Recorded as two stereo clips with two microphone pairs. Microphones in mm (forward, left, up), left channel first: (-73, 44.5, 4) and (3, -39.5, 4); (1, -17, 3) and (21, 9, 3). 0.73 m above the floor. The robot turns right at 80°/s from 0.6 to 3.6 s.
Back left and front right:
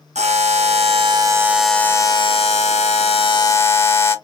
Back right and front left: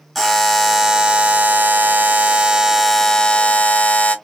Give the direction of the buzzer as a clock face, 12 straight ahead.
1 o'clock.